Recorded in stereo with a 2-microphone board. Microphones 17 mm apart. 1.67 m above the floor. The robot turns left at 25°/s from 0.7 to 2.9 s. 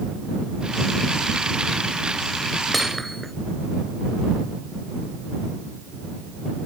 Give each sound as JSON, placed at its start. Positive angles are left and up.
{"t": 2.7, "sound": "hammering", "side_deg": 0}